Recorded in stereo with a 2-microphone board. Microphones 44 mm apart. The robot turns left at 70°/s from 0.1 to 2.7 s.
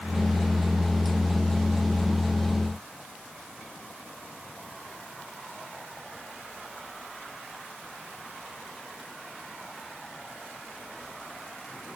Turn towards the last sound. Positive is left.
No sound to turn to.